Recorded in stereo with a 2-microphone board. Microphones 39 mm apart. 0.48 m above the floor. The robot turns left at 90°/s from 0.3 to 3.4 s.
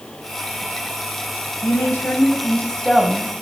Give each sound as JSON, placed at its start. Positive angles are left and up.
{"t": 1.6, "sound": "a woman speaking", "azimuth_deg": 125, "distance_m": 3.0}